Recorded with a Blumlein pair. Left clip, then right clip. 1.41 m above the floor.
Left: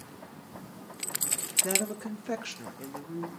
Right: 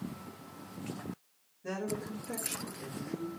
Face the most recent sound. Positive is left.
turn(degrees=35)